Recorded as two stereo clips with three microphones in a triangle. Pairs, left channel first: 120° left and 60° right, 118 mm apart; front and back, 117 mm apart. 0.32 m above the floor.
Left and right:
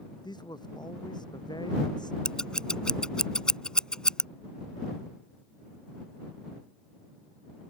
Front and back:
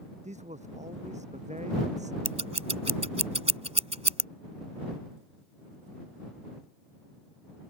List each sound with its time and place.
0.2 s a man speaking: 170° left
2.2 s scissors: 160° right